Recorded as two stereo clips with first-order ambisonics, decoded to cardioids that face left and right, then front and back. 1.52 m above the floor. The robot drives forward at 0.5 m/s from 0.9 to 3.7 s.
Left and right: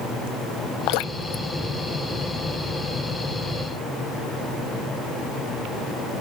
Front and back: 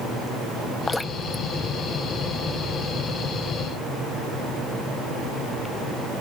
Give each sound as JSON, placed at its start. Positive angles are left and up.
{"t": 0.9, "sound": "dripping", "azimuth_deg": 80}